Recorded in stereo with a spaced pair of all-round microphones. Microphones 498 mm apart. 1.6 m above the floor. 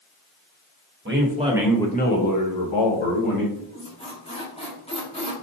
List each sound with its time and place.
1.1 s a man speaking: 25° right (ahead or behind), 1.2 m; by 3.5 s 80° left, 1.4 m
3.5 s a squeak: 10° left (ahead or behind), 1.1 m